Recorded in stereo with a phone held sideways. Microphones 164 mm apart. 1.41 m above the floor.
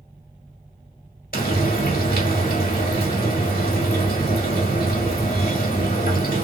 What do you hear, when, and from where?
1.3 s frying: 65° left (ahead or behind), 1.7 m